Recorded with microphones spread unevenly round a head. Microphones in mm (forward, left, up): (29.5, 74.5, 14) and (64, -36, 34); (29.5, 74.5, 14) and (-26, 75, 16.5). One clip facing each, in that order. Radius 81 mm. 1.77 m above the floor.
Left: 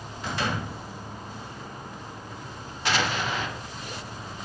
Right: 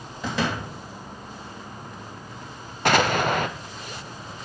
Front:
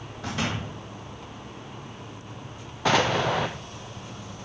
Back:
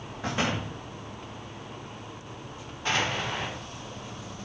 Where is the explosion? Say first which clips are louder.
Right 7 dB, front 6 dB; 40° right, 0.8 m.